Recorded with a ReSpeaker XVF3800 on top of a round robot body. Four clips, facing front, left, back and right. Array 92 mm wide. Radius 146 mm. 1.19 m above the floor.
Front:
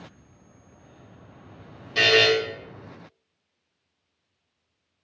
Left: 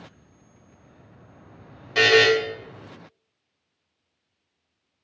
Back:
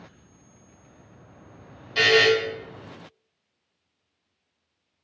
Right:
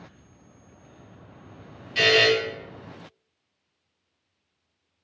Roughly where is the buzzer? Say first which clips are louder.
Left 3 dB, back 1 dB; left.